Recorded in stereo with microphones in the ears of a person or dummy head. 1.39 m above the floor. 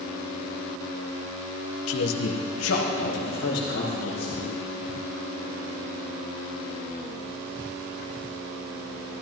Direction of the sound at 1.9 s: 80° left.